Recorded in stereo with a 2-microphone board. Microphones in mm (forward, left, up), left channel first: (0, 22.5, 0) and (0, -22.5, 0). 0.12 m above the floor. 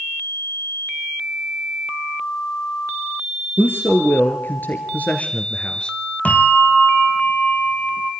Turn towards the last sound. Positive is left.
turn(degrees=35)  # may be behind; listen again after turning